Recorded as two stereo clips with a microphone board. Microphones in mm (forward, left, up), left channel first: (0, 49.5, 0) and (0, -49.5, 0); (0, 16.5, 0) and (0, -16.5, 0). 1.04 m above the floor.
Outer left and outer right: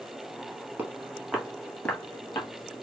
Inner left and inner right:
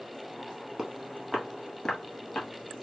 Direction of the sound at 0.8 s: 15° right (ahead or behind).